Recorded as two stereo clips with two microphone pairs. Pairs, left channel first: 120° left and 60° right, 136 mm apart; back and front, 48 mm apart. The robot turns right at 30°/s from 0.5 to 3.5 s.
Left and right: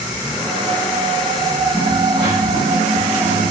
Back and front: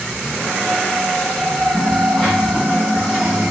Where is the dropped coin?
110° right, 3 m; by 3.5 s 55° right, 3 m.